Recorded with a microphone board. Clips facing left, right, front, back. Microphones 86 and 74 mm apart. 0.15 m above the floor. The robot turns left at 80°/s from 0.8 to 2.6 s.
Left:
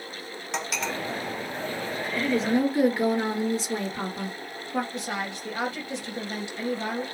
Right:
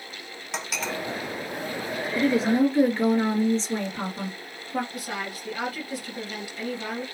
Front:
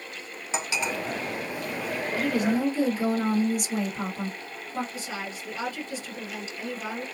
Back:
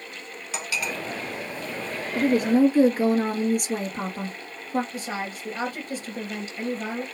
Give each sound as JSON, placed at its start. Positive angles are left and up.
{"t": 0.5, "sound": "cutlery clinking", "azimuth_deg": 0, "distance_m": 0.7}
{"t": 2.1, "sound": "a woman speaking", "azimuth_deg": -155, "distance_m": 2.5}
{"t": 4.9, "sound": "a woman speaking", "azimuth_deg": 150, "distance_m": 2.5}